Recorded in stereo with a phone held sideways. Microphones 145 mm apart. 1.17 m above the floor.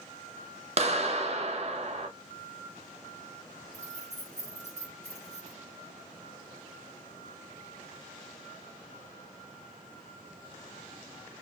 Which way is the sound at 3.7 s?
50° right (ahead or behind).